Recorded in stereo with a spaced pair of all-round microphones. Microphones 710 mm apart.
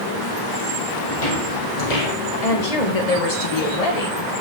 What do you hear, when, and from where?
1.1 s footsteps: 55° left (ahead or behind), 3.5 m; by 2.1 s 65° left (ahead or behind), 3.5 m
2.4 s a woman speaking: 50° left (ahead or behind), 2 m